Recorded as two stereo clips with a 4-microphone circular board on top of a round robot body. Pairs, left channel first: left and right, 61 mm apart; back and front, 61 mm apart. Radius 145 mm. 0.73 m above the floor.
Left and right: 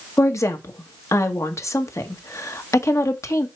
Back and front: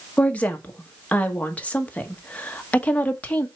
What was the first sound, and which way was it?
A woman speaking, 115° left.